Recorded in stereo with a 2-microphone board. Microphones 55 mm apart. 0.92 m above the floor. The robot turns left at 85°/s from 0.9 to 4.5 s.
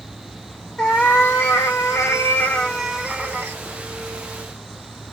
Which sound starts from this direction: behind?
A cat meowing, at 0.8 s.